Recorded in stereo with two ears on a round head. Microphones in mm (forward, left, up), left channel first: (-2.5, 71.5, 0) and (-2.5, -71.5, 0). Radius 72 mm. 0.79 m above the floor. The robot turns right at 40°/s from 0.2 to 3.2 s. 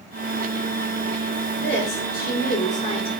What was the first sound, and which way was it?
A woman speaking, 80° left.